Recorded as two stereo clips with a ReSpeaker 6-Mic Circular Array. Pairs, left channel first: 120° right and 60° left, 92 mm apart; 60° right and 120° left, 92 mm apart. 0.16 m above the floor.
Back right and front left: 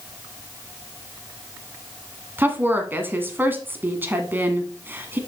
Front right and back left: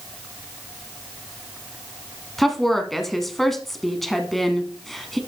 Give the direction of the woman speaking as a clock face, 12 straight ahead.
11 o'clock.